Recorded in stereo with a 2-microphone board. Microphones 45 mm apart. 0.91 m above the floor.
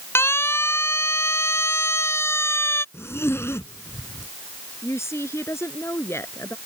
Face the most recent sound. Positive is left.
turn(degrees=75)  # may be behind; listen again after turning